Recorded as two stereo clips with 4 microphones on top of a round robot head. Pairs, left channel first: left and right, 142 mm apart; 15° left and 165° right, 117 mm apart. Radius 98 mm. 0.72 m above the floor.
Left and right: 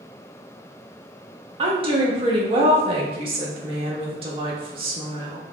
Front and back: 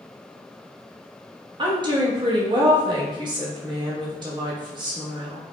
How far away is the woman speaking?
About 0.8 m.